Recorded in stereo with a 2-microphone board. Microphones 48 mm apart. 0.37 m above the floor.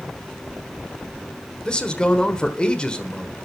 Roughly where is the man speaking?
Centre.